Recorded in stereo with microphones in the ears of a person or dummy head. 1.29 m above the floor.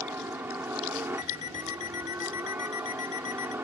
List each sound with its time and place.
0.0 s a helicopter: 15° right (ahead or behind)
1.2 s an alarm clock: 40° left (ahead or behind)